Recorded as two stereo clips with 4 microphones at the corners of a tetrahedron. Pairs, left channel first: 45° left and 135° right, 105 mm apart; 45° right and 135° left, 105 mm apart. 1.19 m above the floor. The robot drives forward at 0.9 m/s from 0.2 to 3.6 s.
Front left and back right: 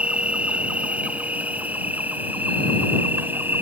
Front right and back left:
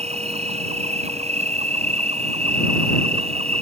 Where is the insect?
145° left; by 3.6 s 150° left.